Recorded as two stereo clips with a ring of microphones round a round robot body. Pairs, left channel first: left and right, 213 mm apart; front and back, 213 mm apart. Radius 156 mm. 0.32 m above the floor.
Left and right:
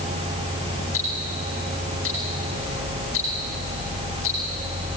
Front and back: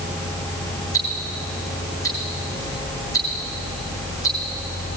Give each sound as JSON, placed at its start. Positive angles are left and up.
{"t": 0.9, "sound": "ticking", "azimuth_deg": 75, "distance_m": 3.5}